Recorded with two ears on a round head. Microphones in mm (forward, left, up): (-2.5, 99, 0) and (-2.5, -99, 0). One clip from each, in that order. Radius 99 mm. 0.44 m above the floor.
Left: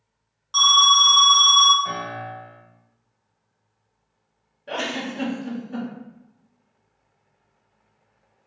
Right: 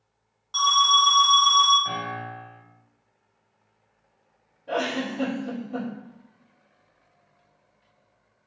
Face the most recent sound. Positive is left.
turn(degrees=65)  # may be behind; listen again after turning